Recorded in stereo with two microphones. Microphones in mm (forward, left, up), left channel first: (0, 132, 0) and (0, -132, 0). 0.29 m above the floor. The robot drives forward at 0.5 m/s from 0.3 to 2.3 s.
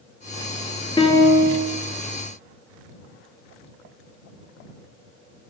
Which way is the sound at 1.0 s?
20° left (ahead or behind).